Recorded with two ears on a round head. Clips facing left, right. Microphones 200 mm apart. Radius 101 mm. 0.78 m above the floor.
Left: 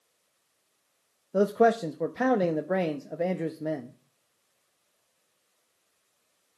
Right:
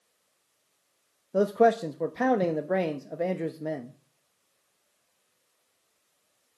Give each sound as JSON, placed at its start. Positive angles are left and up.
{"t": 1.3, "sound": "a man speaking", "side_deg": 0, "distance_m": 0.7}